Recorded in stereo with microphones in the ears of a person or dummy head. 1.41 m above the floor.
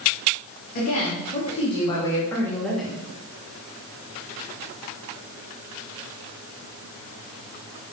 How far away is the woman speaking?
About 3 m.